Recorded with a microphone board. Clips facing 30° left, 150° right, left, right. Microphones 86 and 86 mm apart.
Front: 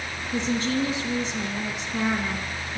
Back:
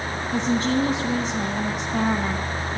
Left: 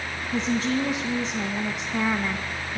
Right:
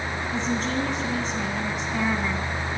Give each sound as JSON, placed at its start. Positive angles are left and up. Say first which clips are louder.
{"t": 0.3, "sound": "a woman speaking", "louder": "back 3 dB, left 3 dB", "azimuth_deg": 175, "distance_m": 2.5}